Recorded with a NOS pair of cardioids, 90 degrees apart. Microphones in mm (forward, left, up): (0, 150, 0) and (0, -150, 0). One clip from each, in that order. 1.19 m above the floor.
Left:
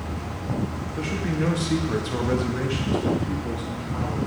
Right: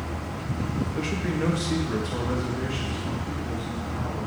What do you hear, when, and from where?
1.0 s a man speaking: 15° right, 1.6 m; by 4.2 s 60° left, 3 m